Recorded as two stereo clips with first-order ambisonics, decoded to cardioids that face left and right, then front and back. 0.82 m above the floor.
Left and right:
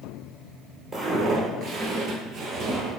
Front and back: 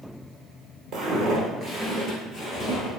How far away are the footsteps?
About 1.0 m.